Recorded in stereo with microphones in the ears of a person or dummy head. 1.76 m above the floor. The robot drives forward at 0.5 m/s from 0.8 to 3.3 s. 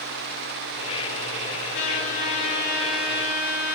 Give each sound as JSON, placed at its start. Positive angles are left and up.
{"t": 1.7, "sound": "a trumpet", "side_deg": 65, "distance_m": 4.5}